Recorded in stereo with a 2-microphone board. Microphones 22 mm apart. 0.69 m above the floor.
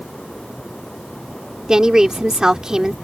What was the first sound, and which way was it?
A woman speaking, 30° right (ahead or behind).